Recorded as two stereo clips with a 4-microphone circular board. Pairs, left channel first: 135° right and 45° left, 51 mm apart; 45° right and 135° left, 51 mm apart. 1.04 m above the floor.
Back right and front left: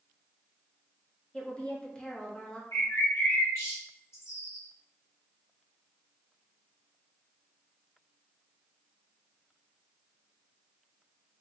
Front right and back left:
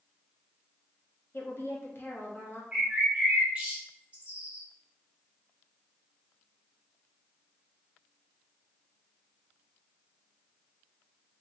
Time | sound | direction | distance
1.3 | a woman speaking | 70° right | 0.9 m
2.7 | a bird | 160° right | 1.2 m